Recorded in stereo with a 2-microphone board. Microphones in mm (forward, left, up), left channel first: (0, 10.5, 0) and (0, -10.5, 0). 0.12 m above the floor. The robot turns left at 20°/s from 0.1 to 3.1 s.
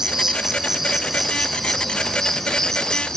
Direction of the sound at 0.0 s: 150° right.